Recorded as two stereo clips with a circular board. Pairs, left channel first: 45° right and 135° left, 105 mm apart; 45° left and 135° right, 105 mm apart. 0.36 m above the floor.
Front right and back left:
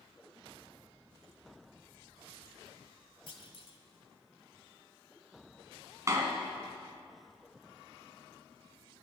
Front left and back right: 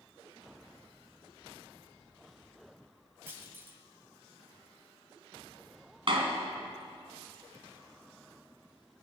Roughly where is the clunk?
Ahead right.